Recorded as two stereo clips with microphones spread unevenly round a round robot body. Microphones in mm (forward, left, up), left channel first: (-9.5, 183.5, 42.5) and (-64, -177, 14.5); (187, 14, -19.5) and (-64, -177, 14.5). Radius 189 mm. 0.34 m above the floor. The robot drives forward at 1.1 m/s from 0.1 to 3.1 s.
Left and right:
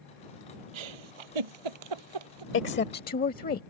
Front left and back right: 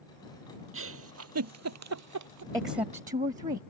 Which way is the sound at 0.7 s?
95° right.